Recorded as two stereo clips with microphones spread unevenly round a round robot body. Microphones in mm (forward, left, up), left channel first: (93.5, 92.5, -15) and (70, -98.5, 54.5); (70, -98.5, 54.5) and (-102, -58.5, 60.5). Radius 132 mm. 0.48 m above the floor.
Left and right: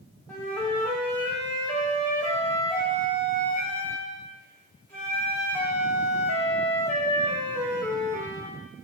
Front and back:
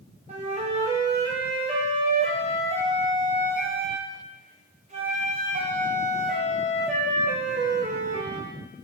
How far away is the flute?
About 1.0 m.